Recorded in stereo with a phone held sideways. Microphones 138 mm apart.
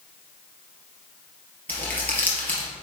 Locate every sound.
1.7 s crumpling: 10° left (ahead or behind), 2.5 m